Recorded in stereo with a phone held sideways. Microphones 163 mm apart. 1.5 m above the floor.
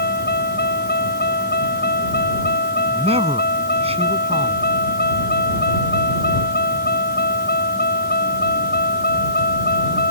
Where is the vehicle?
85° left; by 10.1 s 75° left (ahead or behind).